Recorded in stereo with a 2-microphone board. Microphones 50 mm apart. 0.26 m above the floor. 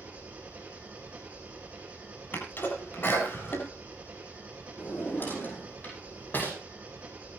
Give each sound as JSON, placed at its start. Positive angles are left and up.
{"t": 0.0, "sound": "an engine running", "side_deg": -25, "distance_m": 6.0}
{"t": 2.3, "sound": "a sneeze", "side_deg": 45, "distance_m": 8.5}
{"t": 4.8, "sound": "a drawer", "side_deg": 40, "distance_m": 7.0}